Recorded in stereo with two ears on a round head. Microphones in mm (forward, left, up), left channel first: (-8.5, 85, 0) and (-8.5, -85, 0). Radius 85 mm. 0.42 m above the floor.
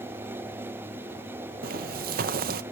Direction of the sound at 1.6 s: 50° right (ahead or behind).